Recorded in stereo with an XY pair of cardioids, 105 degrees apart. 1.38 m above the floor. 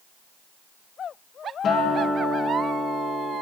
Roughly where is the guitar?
Ahead left.